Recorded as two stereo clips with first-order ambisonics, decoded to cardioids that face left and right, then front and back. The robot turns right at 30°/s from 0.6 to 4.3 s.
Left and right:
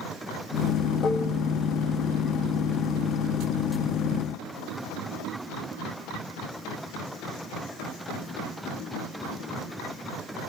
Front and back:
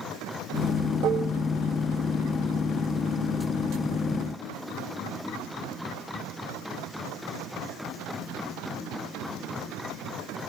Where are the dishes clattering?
150° left, 0.6 m; by 1.4 s 160° left, 0.6 m.